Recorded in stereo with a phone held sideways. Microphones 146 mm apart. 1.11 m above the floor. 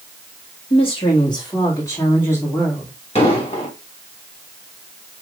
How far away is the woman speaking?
About 1.9 m.